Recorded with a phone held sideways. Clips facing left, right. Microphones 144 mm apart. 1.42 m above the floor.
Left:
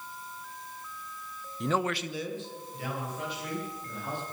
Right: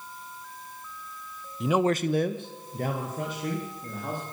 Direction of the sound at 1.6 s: Centre (ahead or behind).